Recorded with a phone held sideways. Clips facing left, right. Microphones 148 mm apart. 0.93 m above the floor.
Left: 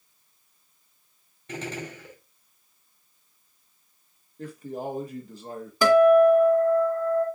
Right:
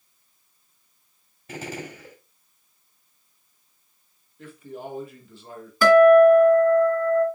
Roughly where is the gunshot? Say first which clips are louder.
Even; centre.